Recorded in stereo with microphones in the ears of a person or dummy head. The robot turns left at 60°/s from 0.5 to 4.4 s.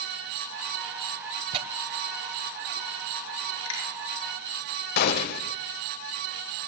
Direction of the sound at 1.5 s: 35° right (ahead or behind).